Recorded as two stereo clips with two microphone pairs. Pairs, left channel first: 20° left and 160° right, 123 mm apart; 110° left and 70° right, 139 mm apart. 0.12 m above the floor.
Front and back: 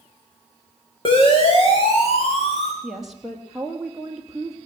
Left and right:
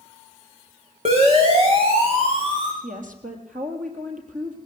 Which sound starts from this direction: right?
A woman speaking, at 2.8 s.